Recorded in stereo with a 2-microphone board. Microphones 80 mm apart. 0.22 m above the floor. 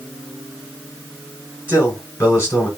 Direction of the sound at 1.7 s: 30° left (ahead or behind).